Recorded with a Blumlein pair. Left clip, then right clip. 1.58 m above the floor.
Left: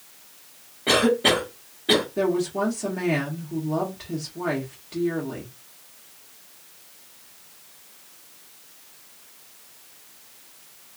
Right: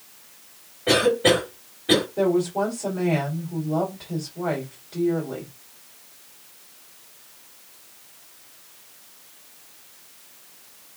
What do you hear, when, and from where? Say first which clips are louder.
0.9 s a cough: right 1 dB; 20° left, 2 m
2.2 s a woman speaking: right 2 dB; 40° left, 1.9 m